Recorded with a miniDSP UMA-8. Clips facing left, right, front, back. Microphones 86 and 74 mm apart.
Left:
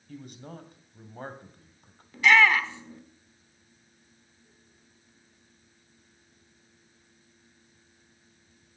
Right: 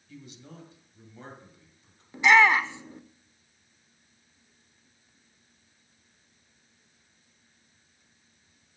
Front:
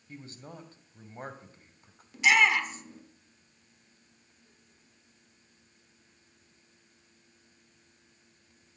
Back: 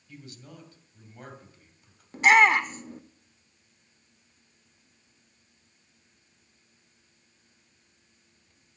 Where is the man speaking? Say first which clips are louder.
Left 4 dB, front 1 dB; 55° left, 2 m.